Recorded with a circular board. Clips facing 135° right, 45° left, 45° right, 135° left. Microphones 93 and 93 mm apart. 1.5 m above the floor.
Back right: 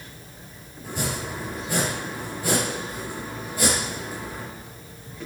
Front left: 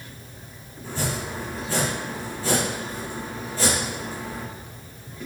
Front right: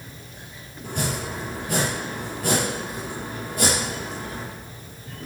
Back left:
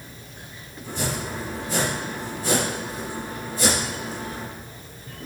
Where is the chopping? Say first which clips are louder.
Front left 1 dB, even; 60° right, 5 m.